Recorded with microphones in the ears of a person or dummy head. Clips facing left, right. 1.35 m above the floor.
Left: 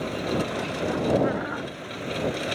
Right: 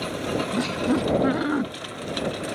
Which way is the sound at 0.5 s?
50° right (ahead or behind).